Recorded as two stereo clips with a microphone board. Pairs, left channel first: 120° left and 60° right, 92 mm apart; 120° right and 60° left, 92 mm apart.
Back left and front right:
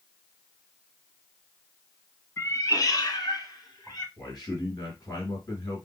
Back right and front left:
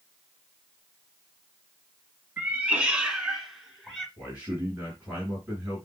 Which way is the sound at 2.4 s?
110° left.